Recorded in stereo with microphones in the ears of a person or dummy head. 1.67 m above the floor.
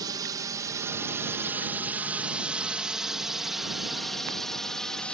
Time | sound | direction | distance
0.0 | a drone | 20° right (ahead or behind) | ?